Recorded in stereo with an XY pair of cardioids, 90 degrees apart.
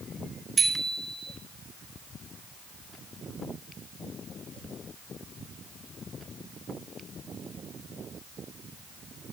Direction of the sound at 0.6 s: 35° right.